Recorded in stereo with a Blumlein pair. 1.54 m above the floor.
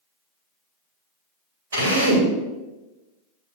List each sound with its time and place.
1.7 s a drill: 65° right, 3 m